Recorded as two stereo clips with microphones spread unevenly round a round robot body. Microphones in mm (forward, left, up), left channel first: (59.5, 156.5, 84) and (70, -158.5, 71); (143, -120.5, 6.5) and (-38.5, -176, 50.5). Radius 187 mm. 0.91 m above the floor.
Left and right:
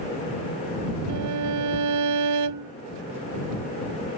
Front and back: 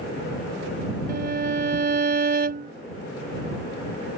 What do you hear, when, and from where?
1.1 s a violin: 130° right